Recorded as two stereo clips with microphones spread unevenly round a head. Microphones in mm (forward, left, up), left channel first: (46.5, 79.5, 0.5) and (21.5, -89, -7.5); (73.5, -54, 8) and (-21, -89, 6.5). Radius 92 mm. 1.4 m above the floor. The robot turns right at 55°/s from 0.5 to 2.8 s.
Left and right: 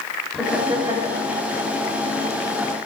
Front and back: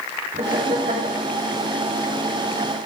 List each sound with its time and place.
0.3 s laughter: 170° left, 3.5 m; by 1.2 s 150° right, 3.5 m